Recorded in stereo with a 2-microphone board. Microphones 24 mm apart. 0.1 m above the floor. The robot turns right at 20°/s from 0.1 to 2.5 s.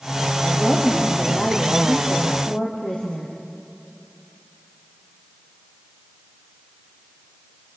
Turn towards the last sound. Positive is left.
turn(degrees=85)